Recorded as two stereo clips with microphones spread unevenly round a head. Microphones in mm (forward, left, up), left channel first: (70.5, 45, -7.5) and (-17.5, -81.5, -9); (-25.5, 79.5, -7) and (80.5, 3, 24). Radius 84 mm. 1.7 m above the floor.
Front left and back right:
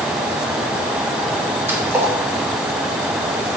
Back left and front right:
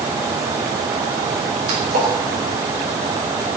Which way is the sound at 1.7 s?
50° right.